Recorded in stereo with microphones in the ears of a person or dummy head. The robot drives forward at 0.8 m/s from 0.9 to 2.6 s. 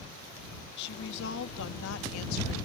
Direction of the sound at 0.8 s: 65° left (ahead or behind).